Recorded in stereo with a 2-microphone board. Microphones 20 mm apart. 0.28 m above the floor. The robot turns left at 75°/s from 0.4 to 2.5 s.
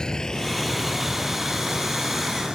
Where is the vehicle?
40° left (ahead or behind); by 2.5 s 45° right (ahead or behind).